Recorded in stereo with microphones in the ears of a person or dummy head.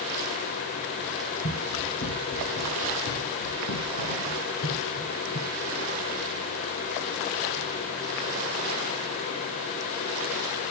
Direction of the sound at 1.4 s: 65° left (ahead or behind).